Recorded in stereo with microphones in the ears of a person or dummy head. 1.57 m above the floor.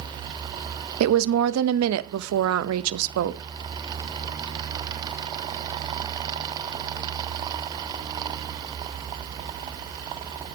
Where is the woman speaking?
85° right, 0.5 m.